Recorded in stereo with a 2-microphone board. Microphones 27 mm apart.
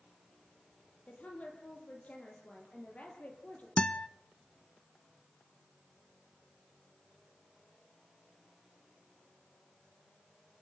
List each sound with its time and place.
1.1 s a woman speaking: 60° left (ahead or behind), 9 m
3.8 s a guitar: 40° left (ahead or behind), 0.7 m